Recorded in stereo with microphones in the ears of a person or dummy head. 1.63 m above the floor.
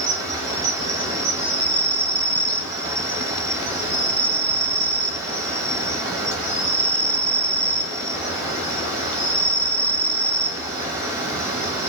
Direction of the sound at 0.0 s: 25° right (ahead or behind).